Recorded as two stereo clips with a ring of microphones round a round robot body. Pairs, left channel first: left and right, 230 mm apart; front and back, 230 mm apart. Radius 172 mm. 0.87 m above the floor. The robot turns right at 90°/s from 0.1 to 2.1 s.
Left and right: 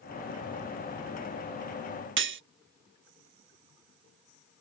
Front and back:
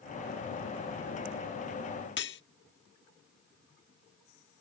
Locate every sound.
2.2 s cutlery clinking: 55° right